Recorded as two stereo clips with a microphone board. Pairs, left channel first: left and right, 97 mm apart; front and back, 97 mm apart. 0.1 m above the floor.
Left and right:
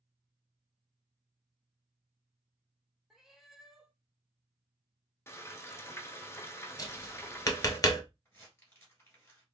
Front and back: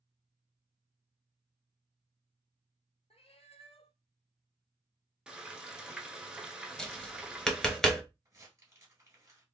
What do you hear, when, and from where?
3.1 s a cat meowing: 5° right, 0.6 m
5.3 s frying: 110° left, 0.6 m
6.8 s tapping: 85° left, 0.7 m
8.2 s crumpling: 140° left, 1.7 m